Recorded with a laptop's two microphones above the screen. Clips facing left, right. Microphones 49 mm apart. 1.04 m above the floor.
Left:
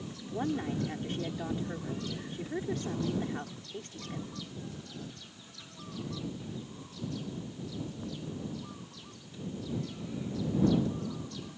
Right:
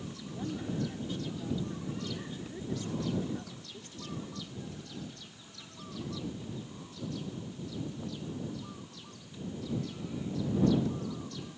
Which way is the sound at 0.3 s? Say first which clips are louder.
Left 5 dB; 55° left (ahead or behind).